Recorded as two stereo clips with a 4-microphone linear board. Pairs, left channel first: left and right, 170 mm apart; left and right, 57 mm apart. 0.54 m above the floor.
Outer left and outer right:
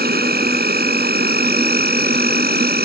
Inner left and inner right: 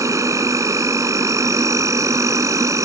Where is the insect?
70° right (ahead or behind).